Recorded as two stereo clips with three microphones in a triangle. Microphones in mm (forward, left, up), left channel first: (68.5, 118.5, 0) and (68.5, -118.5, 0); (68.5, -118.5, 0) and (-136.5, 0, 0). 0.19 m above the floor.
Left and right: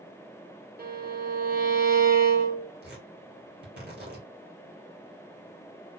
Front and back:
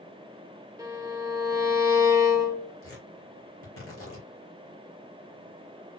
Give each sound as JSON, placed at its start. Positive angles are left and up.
{"t": 0.8, "sound": "a violin", "azimuth_deg": -135, "distance_m": 1.1}
{"t": 2.8, "sound": "tearing paper", "azimuth_deg": -45, "distance_m": 3.0}